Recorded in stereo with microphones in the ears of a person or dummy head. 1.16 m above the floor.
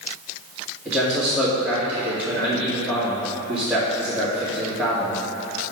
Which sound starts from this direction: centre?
A man speaking, at 0.8 s.